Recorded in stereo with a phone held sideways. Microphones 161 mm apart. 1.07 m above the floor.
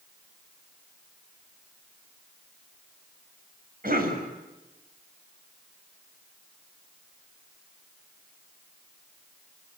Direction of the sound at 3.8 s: 65° right (ahead or behind).